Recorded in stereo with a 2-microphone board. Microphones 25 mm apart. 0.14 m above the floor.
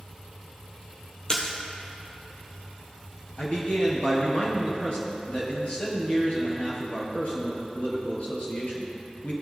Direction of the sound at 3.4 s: 50° left (ahead or behind).